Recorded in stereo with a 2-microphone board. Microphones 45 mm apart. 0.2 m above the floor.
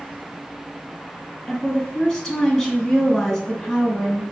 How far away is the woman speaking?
About 1.4 m.